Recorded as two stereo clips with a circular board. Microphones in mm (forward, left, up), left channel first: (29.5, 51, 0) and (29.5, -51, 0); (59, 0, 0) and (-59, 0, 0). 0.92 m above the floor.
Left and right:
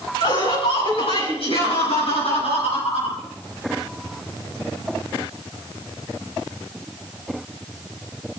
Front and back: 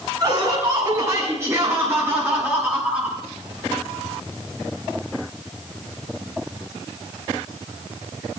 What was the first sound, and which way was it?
Laughter, 120° left.